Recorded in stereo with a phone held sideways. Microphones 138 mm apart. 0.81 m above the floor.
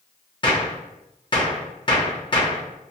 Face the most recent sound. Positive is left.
turn(degrees=35)  # may be behind; listen again after turning